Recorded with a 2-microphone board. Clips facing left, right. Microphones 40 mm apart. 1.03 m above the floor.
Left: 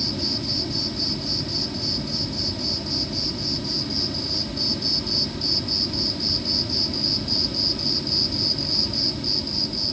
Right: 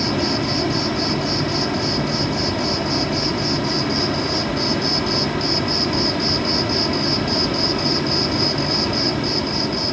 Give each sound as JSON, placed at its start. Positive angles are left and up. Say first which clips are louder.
{"t": 0.0, "sound": "an insect", "louder": "right 8 dB", "side_deg": -75}